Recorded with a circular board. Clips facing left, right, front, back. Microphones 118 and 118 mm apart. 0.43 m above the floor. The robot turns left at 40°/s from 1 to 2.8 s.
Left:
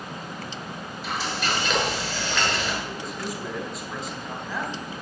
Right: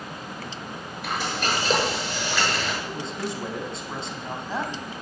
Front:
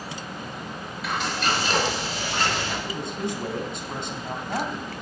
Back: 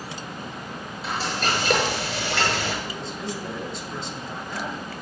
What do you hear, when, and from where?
1.0 s frying: 120° right, 7 m; by 2.7 s 175° left, 7 m
2.8 s a man speaking: 30° right, 3.5 m